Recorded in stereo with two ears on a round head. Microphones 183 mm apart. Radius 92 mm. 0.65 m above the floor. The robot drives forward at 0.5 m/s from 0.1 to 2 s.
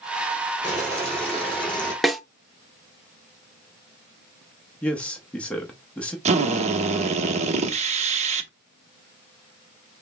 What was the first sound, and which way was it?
Boiling, 5° left (ahead or behind).